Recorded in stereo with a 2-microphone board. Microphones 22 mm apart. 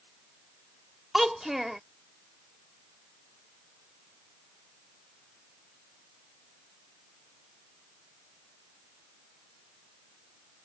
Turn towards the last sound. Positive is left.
turn(degrees=-15)  # may be behind; listen again after turning